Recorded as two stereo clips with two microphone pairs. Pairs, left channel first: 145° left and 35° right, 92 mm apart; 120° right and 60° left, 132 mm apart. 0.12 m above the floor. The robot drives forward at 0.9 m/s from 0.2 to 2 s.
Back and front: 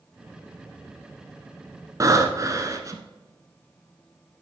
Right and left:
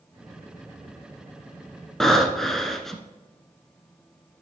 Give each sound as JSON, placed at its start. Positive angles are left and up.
{"t": 2.0, "sound": "breathing", "azimuth_deg": -35, "distance_m": 1.0}